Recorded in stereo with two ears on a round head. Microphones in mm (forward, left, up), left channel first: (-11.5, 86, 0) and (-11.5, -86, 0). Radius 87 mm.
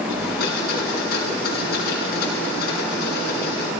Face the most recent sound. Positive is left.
turn(degrees=50)  # may be behind; listen again after turning